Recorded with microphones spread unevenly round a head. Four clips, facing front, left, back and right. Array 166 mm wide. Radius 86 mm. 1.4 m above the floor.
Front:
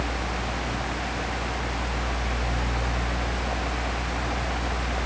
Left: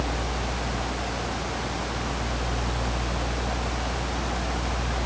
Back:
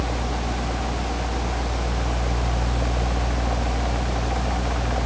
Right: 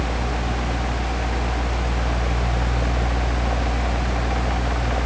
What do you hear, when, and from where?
Only background noise.